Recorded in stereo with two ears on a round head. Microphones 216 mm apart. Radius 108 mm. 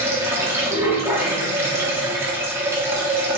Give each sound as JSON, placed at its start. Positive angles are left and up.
{"t": 0.0, "sound": "running water", "side_deg": -10, "distance_m": 0.8}